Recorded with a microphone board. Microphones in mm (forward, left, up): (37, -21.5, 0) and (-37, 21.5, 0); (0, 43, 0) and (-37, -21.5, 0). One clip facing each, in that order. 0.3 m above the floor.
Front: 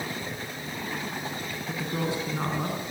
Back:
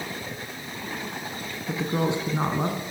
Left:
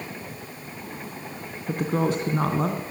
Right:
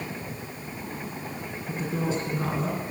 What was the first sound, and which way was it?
A woman speaking, 85° left.